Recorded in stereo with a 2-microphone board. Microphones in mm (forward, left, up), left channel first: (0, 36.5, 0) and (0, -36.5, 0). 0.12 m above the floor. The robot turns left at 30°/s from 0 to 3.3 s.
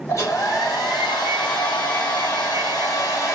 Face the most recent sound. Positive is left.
turn(degrees=40)